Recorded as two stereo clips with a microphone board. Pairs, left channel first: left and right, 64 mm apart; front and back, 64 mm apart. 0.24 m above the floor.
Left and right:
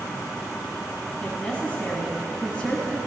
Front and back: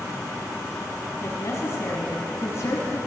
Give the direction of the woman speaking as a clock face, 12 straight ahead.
11 o'clock.